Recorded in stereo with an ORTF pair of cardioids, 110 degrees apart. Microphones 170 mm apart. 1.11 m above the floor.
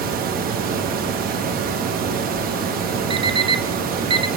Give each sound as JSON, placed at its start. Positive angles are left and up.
{"t": 0.0, "sound": "a fan", "azimuth_deg": -60, "distance_m": 0.9}
{"t": 3.1, "sound": "an alarm clock", "azimuth_deg": -30, "distance_m": 0.6}